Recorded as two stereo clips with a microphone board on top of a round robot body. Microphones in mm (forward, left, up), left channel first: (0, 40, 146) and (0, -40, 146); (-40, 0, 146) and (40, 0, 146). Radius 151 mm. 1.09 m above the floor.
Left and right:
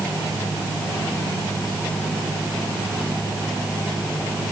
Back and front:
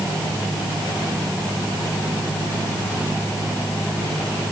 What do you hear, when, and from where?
Only background noise.